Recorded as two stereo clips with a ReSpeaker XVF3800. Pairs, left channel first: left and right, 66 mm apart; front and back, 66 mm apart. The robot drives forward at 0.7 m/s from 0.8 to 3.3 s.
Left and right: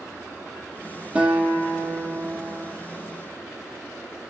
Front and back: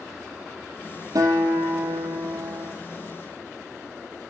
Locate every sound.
1.1 s a guitar: 165° right, 2 m; by 2.8 s 170° right, 3.5 m